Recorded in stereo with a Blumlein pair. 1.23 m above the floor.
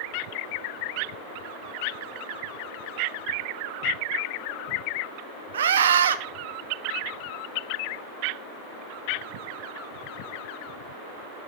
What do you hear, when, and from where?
5.5 s a scream: 65° right, 1.0 m